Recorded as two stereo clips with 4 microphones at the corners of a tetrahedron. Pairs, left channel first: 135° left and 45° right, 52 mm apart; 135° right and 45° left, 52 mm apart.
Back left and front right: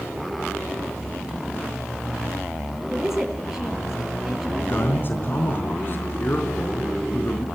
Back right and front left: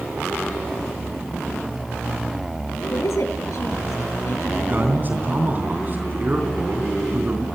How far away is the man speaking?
About 3.5 m.